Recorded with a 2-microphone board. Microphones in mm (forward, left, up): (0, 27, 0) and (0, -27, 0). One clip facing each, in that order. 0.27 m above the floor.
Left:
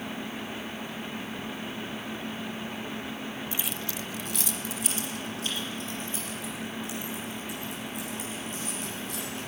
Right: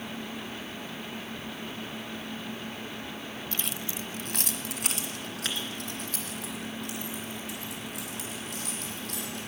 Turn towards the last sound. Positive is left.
turn(degrees=-85)